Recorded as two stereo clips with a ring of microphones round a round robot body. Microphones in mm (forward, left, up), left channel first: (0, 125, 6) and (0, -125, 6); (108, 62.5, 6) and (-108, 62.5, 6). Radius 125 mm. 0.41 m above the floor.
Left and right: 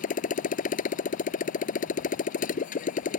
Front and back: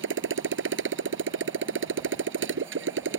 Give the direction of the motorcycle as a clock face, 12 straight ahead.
7 o'clock.